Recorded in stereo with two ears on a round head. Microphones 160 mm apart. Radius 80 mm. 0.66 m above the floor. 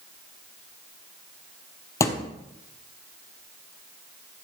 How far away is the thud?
About 1.5 m.